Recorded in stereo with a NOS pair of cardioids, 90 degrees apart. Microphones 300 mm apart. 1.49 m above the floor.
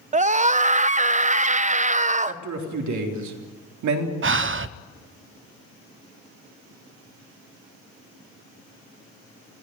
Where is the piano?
No piano in this recording.